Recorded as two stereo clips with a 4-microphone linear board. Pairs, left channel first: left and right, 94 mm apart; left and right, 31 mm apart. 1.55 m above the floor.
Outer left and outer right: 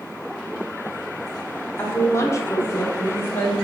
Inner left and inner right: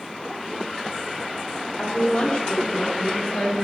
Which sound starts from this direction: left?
A woman speaking, at 1.8 s.